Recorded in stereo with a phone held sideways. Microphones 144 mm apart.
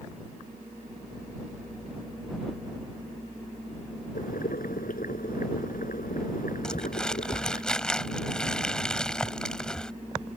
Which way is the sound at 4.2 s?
75° left (ahead or behind).